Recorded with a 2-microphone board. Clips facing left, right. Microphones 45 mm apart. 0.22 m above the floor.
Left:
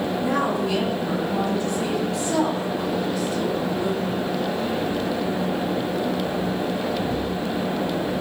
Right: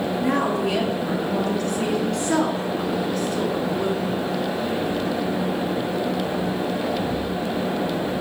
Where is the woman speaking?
70° right (ahead or behind), 4 m; by 4.3 s 55° right (ahead or behind), 2 m.